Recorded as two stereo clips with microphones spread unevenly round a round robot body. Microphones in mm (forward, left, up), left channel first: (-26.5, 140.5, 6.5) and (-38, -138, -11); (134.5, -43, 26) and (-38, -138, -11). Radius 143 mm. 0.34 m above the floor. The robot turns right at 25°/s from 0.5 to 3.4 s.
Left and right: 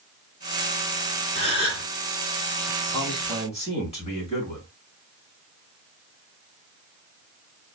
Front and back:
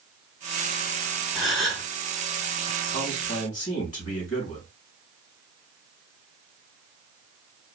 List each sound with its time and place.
1.4 s a gasp: 90° right, 1.4 m; by 1.9 s 75° right, 1.4 m
2.9 s a man speaking: 5° left, 2.5 m; by 4.7 s 20° left, 2.5 m